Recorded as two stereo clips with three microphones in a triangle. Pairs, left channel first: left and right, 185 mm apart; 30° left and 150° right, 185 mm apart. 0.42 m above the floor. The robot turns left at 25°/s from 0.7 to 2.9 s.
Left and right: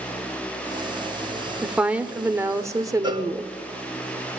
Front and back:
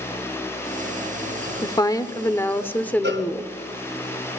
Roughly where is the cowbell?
Behind right.